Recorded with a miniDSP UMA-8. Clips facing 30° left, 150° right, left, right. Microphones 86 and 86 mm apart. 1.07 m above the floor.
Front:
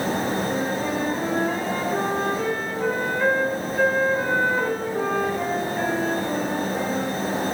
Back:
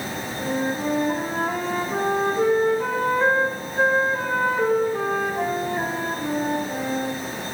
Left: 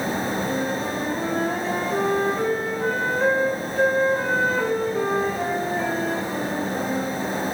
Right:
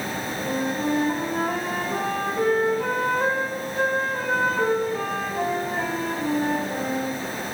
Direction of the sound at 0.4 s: 95° right.